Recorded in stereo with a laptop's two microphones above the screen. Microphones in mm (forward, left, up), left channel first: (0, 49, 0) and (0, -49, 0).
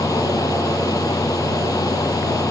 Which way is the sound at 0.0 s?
35° left (ahead or behind).